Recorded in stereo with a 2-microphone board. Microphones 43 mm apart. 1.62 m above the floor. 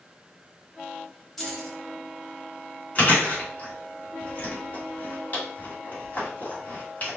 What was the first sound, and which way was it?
Keys jangling, 10° left (ahead or behind).